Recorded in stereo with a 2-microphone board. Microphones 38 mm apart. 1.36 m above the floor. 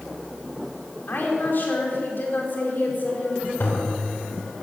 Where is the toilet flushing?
65° left (ahead or behind), 3.5 m.